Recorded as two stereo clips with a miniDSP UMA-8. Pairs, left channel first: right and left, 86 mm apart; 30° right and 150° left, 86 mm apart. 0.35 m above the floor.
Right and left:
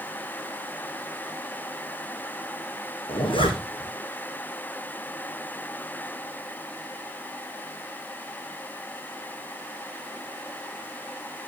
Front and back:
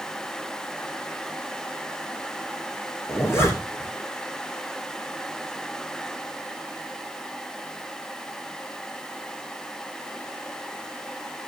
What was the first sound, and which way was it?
A zipper, 90° right.